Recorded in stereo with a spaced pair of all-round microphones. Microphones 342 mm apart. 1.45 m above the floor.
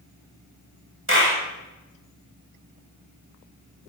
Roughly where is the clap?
Right.